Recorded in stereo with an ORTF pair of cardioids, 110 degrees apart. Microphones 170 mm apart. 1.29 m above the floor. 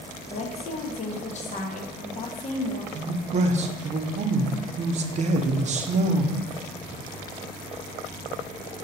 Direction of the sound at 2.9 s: 40° right.